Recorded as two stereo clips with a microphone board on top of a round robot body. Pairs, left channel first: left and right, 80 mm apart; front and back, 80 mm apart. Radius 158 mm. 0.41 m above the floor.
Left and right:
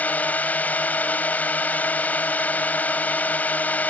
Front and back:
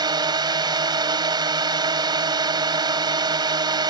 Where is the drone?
160° left.